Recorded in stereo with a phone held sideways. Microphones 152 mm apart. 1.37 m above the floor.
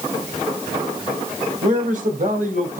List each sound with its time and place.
1.6 s a man speaking: 60° right (ahead or behind), 6.5 m; by 2.8 s 65° right (ahead or behind), 6 m